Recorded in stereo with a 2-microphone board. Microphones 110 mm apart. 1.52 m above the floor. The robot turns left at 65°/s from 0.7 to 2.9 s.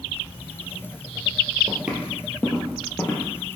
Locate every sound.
1.7 s footsteps: 25° right (ahead or behind), 1.6 m; by 3.6 s 15° left (ahead or behind), 2.5 m